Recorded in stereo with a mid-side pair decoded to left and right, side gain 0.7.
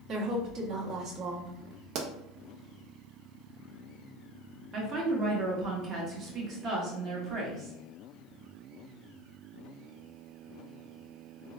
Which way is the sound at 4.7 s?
45° right.